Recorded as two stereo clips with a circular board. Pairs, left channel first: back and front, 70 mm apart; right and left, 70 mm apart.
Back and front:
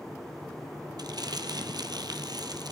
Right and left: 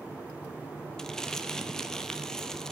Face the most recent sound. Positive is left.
turn(degrees=-10)